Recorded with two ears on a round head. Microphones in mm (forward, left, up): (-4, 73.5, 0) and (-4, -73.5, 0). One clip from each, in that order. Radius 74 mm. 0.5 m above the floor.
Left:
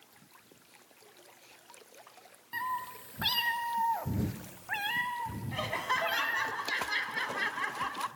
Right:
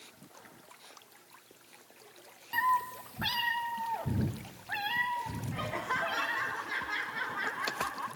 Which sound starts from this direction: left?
Laughter, at 5.5 s.